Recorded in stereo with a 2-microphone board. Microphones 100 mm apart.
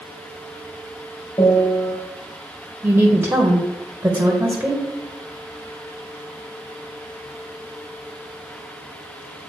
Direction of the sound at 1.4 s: 40° left (ahead or behind).